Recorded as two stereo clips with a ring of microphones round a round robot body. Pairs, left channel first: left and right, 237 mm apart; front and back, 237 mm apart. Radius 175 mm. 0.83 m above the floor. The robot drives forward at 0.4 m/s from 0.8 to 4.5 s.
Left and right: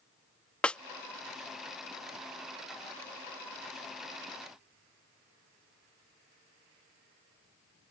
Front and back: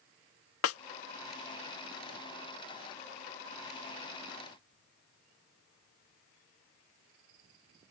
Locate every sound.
0.6 s a snare drum: 5° left